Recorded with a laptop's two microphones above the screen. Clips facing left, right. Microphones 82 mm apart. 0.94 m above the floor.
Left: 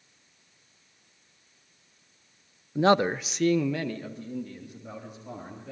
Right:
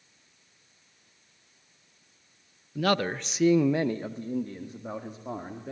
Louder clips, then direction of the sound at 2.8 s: Left 5 dB; 25° left (ahead or behind).